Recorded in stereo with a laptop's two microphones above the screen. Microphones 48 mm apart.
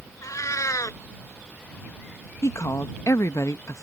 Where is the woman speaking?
70° left (ahead or behind).